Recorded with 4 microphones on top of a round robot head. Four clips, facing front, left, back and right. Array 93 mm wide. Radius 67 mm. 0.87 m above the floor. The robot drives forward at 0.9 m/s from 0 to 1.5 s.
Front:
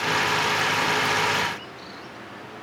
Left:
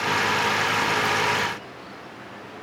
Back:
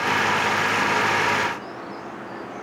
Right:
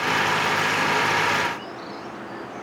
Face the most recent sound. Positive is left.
No sound to turn to.